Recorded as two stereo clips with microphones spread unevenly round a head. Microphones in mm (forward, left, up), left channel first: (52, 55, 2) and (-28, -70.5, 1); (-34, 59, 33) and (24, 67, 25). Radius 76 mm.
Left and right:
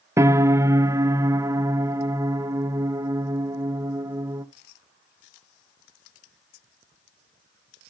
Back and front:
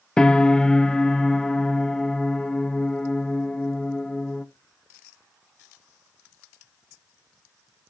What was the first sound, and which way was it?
A piano, 90° right.